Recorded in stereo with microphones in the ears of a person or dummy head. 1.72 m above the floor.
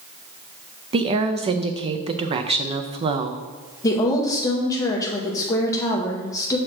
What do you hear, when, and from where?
0.9 s a woman speaking: 25° right (ahead or behind), 0.6 m
3.8 s a woman speaking: 20° left (ahead or behind), 0.8 m